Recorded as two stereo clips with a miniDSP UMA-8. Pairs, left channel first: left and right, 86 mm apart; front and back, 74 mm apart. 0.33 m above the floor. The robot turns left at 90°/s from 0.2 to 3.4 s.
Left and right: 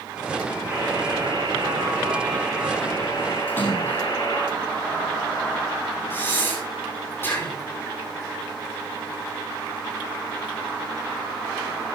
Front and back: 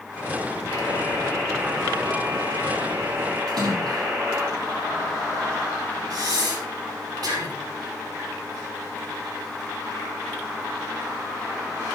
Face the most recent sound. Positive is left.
turn(degrees=155)